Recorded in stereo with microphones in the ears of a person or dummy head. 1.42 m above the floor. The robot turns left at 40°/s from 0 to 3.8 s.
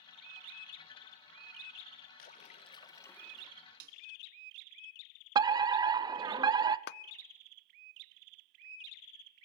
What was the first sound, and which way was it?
A splash, 45° left.